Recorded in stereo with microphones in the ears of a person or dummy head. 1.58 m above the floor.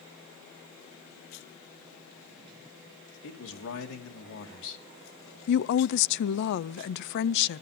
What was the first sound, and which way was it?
A man speaking, 75° left (ahead or behind).